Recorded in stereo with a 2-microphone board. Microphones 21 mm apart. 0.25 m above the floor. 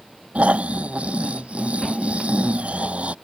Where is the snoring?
80° right.